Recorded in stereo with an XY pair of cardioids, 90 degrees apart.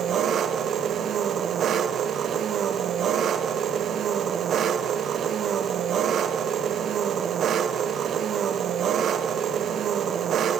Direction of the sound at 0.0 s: 65° right.